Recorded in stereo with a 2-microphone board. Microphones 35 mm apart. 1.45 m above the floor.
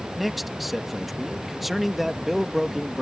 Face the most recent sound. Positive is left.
turn(degrees=-5)  # may be behind; listen again after turning